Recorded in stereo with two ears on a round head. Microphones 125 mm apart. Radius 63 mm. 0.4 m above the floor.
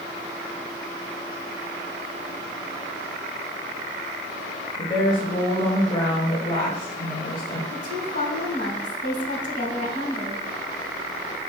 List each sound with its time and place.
4.8 s a woman speaking: 30° left (ahead or behind), 1.9 m
7.7 s a woman speaking: 55° left (ahead or behind), 3.5 m